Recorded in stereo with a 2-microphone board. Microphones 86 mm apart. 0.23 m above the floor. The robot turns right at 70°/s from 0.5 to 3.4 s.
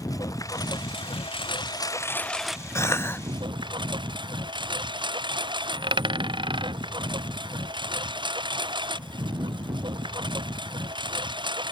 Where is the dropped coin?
70° right (ahead or behind).